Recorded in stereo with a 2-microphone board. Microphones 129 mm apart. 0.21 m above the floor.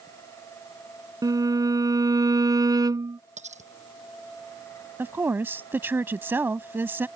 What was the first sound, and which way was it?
A violin, 30° right (ahead or behind).